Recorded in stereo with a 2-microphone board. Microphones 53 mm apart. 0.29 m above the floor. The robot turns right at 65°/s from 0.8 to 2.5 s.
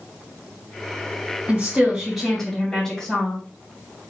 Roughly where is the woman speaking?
Ahead right.